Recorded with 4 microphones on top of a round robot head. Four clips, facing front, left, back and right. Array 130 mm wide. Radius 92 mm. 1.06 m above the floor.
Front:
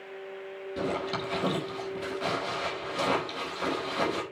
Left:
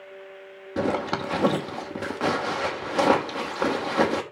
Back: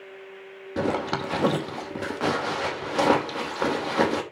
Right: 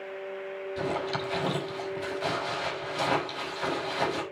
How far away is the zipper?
About 3 m.